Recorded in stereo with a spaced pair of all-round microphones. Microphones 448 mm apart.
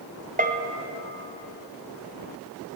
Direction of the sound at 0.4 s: 20° right (ahead or behind).